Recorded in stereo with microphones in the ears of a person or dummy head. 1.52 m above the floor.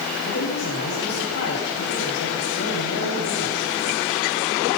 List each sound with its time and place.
0.2 s a man speaking: 80° left, 8.5 m